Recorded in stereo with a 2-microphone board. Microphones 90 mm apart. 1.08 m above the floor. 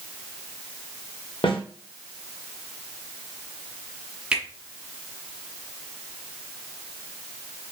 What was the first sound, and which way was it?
A snare drum, 80° left.